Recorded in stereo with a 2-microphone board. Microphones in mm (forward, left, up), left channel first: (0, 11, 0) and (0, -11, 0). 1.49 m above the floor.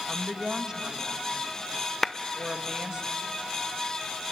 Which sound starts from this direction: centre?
A clap, at 2.0 s.